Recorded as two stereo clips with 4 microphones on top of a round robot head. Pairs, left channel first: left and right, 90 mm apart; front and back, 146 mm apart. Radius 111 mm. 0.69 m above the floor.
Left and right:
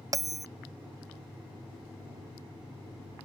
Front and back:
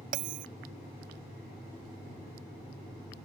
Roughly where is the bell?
Behind right.